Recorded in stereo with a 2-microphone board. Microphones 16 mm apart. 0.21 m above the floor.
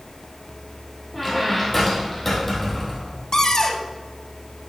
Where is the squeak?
10° left (ahead or behind), 3 m.